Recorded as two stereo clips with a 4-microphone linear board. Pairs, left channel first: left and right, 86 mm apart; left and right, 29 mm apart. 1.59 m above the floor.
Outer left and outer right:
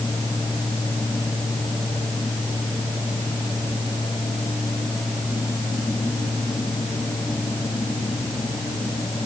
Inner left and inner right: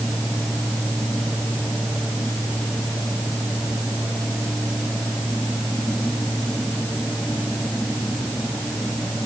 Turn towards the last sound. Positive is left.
No sound to turn to.